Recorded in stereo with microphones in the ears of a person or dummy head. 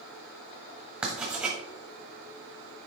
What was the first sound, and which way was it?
Writing, 5° right (ahead or behind).